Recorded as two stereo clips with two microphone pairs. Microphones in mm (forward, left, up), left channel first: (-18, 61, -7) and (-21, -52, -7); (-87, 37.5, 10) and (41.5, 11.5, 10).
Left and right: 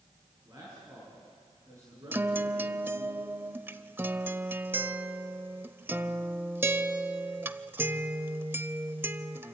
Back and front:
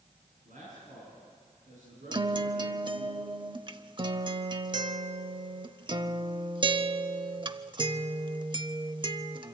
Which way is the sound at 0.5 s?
30° right.